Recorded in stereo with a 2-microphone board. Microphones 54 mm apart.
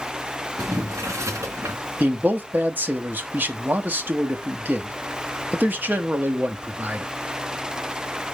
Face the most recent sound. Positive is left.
turn(degrees=-35)  # may be behind; listen again after turning